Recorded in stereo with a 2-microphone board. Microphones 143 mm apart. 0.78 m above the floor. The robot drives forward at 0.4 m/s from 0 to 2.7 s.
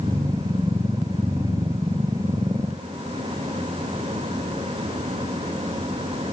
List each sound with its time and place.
Only background noise.